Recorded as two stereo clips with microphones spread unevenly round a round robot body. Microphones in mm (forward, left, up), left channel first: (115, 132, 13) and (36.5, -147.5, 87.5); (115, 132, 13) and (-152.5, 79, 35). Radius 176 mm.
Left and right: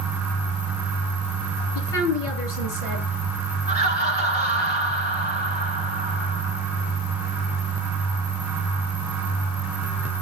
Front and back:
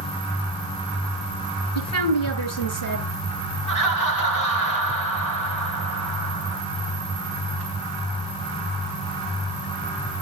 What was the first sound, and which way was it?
A woman speaking, 35° left.